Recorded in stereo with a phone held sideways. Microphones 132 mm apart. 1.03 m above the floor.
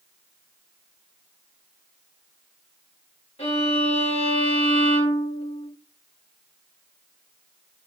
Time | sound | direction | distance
3.4 | a violin | 50° left (ahead or behind) | 1.2 m